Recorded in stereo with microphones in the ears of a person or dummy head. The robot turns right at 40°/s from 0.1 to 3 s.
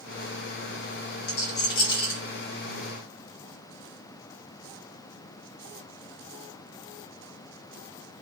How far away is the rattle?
About 1.6 m.